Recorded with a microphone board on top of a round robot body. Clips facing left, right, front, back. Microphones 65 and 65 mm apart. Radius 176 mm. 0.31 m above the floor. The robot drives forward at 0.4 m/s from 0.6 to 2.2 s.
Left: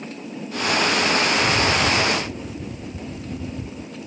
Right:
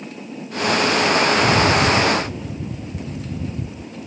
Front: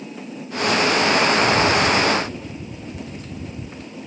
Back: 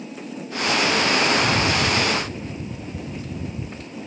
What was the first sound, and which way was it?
A rattle, 110° right.